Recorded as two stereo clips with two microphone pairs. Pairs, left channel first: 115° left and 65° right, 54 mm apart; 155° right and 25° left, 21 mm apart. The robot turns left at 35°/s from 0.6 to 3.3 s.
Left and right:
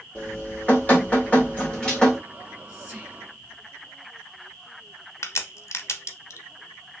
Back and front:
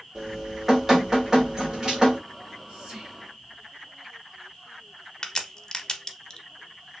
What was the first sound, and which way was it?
Dripping, 100° left.